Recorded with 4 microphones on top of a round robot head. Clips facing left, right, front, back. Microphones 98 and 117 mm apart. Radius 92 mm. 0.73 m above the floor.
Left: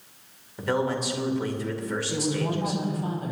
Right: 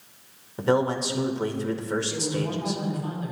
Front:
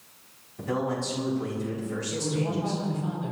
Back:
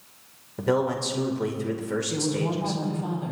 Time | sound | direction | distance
0.6 | a man speaking | 150° right | 2.5 m
2.1 | a woman speaking | 140° left | 5 m